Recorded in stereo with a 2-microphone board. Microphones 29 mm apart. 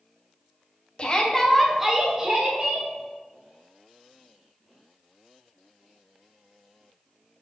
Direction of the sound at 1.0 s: 35° left (ahead or behind).